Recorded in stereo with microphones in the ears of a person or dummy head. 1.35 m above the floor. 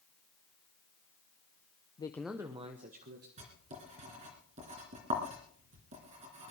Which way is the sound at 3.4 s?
40° right (ahead or behind).